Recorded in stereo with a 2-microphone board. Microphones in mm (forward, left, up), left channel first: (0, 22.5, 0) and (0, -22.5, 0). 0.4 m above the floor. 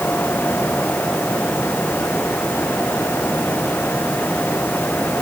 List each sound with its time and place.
Only background noise.